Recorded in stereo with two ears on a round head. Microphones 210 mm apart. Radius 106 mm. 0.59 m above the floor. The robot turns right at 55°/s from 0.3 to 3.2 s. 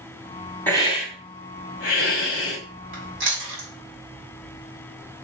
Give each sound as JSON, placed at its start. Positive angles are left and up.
{"t": 0.7, "sound": "a hiss", "azimuth_deg": 10, "distance_m": 2.0}
{"t": 2.9, "sound": "chewing", "side_deg": -40, "distance_m": 4.0}